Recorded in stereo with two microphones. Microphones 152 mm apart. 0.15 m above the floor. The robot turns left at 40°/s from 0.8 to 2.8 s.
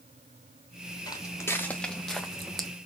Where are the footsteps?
25° left (ahead or behind), 1.3 m; by 2.7 s centre (ahead or behind), 0.6 m.